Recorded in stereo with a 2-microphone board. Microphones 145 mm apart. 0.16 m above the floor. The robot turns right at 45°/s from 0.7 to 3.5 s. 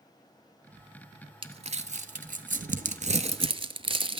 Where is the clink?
No clink in this recording.